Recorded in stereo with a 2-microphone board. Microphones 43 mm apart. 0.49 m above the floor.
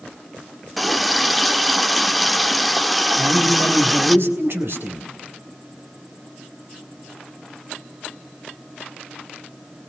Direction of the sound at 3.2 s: 60° right (ahead or behind).